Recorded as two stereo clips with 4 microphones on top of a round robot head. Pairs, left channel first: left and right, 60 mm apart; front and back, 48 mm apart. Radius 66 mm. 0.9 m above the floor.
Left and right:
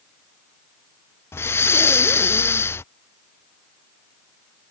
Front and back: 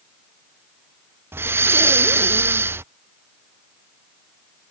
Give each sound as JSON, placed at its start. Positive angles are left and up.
{"t": 1.3, "sound": "breathing", "azimuth_deg": 140}